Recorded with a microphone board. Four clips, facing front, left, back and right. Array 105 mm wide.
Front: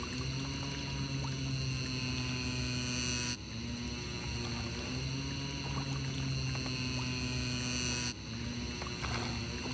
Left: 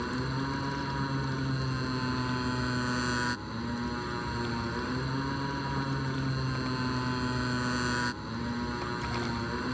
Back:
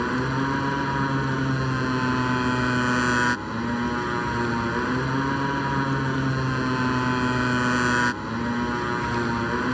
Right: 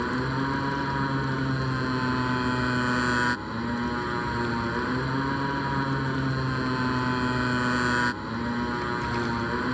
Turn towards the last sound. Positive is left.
turn(degrees=-160)